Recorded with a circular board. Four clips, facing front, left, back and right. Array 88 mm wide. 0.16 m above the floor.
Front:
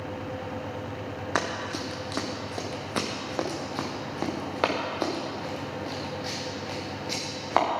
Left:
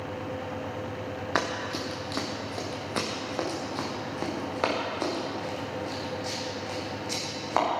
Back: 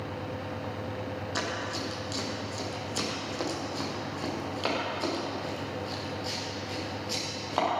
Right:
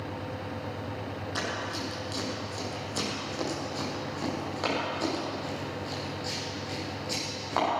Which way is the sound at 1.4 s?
40° left.